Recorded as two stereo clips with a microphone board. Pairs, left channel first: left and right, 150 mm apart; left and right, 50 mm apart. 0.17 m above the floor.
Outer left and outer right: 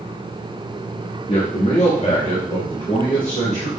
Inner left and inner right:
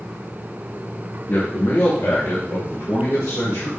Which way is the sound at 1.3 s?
40° left (ahead or behind).